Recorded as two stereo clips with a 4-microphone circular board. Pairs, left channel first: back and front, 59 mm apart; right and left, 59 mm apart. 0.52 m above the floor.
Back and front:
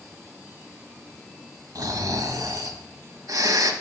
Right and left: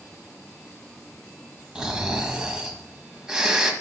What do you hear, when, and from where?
1.8 s snoring: 15° left, 1.2 m